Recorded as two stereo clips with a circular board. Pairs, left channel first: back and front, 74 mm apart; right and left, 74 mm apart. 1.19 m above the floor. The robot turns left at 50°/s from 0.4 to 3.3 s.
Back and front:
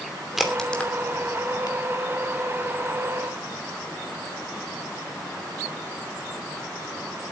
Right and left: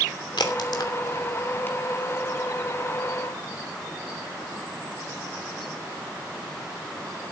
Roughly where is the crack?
Right.